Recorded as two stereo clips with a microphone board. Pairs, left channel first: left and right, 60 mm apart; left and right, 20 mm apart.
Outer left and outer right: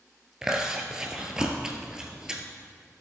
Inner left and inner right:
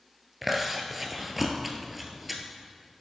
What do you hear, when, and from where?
0.4 s chewing: 10° right (ahead or behind), 1.4 m